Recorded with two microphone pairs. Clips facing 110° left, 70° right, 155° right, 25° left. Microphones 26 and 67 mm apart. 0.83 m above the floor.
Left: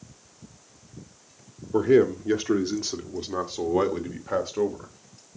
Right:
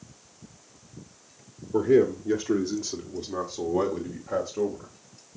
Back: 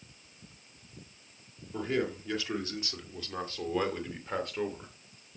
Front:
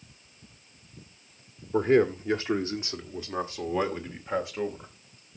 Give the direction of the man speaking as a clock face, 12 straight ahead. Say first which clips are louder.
Left 1 dB, front 10 dB; 10 o'clock.